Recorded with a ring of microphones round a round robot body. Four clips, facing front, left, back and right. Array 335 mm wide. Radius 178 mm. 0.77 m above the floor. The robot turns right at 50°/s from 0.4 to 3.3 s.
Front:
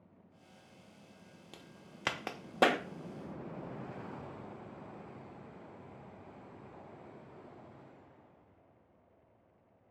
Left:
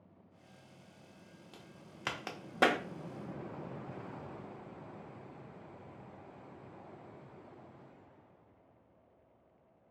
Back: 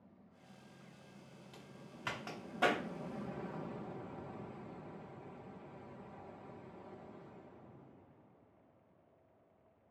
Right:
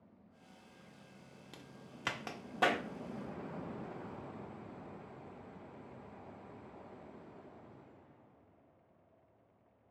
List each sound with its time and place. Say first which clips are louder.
1.5 s a crack: right 2 dB, even; 30° right, 0.5 m; by 2.8 s 35° left, 0.5 m